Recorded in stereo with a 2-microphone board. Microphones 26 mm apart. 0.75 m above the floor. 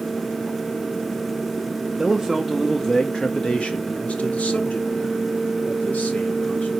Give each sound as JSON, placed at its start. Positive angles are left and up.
{"t": 2.0, "sound": "a man speaking", "side_deg": -10, "distance_m": 1.0}